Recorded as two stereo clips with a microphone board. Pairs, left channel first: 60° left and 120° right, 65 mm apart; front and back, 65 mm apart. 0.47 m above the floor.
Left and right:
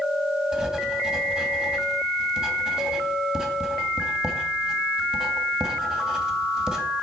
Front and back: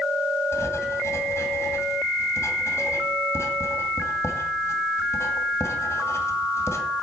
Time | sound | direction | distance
0.5 | writing | 40° right | 2.5 m